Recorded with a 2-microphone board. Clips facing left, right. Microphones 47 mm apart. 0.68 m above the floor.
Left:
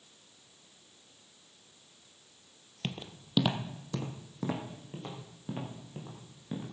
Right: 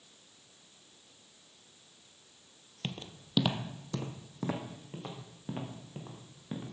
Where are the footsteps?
10° left (ahead or behind), 0.9 m; by 6.6 s 10° right (ahead or behind), 4 m.